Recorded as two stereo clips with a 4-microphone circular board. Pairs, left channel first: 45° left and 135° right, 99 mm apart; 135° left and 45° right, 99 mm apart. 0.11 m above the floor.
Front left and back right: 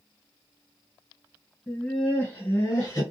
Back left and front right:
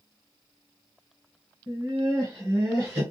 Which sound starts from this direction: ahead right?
Laughter, at 1.7 s.